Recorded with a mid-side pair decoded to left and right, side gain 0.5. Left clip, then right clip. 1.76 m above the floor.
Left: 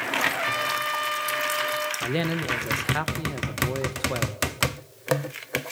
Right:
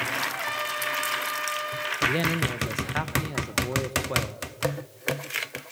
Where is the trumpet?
20° left, 2 m.